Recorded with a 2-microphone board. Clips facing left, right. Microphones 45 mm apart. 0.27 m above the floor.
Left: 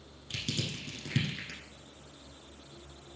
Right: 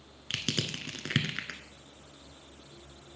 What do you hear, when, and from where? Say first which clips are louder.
0.3 s crushing: right 3 dB; 80° right, 0.9 m